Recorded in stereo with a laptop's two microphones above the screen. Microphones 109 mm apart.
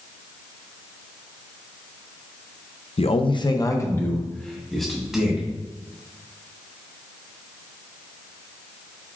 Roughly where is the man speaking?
Left.